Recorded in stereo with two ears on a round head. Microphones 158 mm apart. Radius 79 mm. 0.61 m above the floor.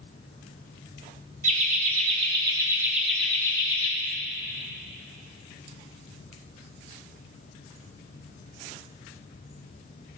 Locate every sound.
1.4 s laughter: 45° right (ahead or behind), 1.5 m; by 3.9 s 30° left (ahead or behind), 1.0 m